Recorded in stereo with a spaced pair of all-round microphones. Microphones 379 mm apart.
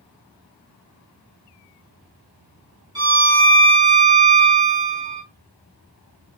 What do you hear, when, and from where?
3.0 s a violin: 10° right (ahead or behind), 2 m